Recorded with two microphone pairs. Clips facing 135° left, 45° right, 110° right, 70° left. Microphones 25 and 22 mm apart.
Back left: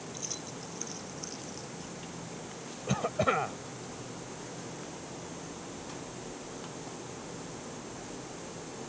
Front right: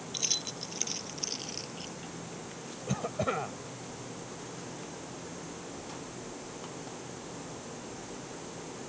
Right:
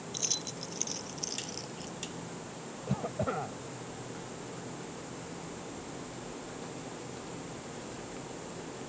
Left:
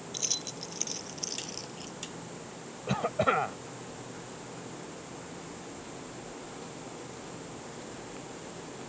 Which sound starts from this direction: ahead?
Keys jangling, at 0.1 s.